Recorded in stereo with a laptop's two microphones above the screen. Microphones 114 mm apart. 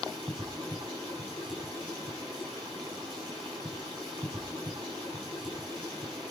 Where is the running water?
40° right (ahead or behind), 9 m.